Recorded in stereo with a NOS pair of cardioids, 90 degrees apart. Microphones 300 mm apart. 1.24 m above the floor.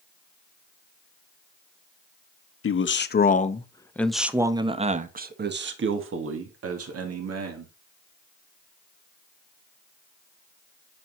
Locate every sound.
2.6 s a man speaking: 45° left, 1.3 m; by 7.7 s 55° right, 2.5 m